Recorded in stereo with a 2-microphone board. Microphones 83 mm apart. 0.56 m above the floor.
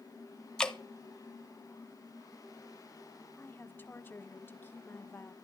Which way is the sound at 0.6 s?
10° left (ahead or behind).